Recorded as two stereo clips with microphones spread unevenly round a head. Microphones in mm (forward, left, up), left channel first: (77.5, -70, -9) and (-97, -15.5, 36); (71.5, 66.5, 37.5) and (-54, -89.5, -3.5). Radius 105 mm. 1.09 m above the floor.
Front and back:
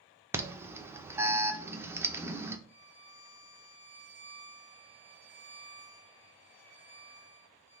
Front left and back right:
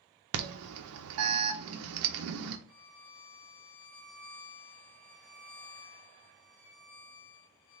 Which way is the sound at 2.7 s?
Straight ahead.